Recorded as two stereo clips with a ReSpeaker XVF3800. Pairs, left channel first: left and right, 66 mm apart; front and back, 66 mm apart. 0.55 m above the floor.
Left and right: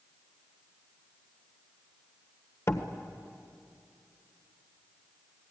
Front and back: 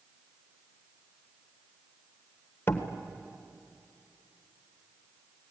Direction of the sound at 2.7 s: 50° left.